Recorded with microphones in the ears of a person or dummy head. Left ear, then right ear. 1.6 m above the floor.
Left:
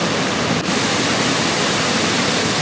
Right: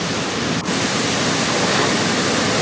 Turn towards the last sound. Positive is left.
No sound to turn to.